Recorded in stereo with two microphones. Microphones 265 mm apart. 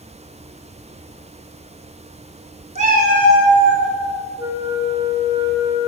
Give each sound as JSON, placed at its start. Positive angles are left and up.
{"t": 2.8, "sound": "a cat meowing", "side_deg": -25, "distance_m": 0.6}
{"t": 4.4, "sound": "a flute", "side_deg": -10, "distance_m": 0.8}